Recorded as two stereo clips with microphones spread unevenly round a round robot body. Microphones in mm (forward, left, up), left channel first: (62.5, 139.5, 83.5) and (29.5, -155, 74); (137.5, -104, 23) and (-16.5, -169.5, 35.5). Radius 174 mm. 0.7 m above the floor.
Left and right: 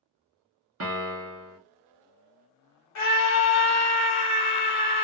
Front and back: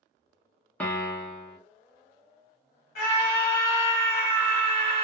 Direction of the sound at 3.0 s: 65° left.